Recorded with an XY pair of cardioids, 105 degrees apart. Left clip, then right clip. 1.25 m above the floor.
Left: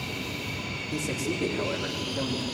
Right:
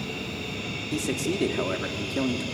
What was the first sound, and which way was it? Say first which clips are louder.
A man speaking: right 3 dB; 40° right.